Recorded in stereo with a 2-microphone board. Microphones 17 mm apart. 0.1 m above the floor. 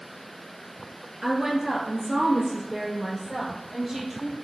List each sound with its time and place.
1.2 s a woman speaking: 30° right (ahead or behind), 1.5 m; by 4.3 s 25° right (ahead or behind), 3 m